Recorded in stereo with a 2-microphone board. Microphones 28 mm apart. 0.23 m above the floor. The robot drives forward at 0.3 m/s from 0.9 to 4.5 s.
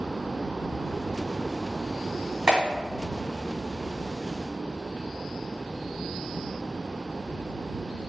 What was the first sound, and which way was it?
A clap, 35° right (ahead or behind).